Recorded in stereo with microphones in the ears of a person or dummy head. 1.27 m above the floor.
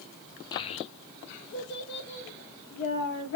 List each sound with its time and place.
0.5 s a child speaking: 20° left (ahead or behind), 0.6 m; by 3.4 s 55° left (ahead or behind), 1.6 m